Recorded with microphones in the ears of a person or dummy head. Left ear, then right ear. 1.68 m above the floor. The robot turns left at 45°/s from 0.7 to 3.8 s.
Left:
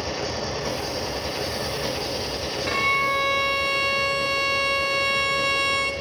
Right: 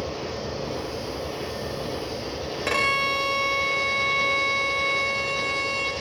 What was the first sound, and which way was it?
An engine running, 110° left.